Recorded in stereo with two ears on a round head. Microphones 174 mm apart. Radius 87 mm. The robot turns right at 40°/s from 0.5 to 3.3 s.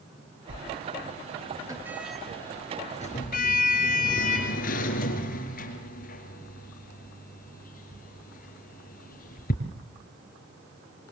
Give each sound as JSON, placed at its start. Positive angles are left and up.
{"t": 0.5, "sound": "a sliding door", "side_deg": -65, "distance_m": 5.0}